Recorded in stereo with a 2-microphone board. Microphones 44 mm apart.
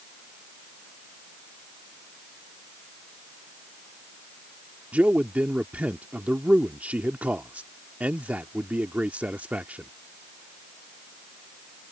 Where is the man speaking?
35° right (ahead or behind).